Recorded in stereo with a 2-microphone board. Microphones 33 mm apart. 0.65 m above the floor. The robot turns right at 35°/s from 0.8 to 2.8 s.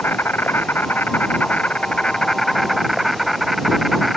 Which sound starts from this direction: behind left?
An insect, at 0.0 s.